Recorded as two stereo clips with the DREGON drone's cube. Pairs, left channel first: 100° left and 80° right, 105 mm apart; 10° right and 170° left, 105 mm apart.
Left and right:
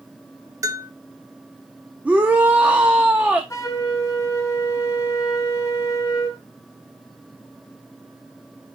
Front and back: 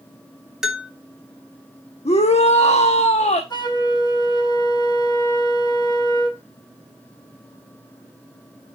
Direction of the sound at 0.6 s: 110° right.